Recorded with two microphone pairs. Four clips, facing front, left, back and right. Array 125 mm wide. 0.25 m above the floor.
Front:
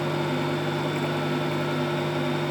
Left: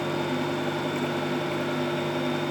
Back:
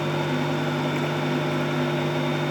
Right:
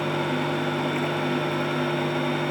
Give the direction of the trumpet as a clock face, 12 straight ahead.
I don't hear a trumpet.